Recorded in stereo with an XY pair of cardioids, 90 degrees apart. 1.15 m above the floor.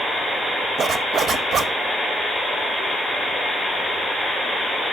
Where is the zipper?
70° right, 1.1 m.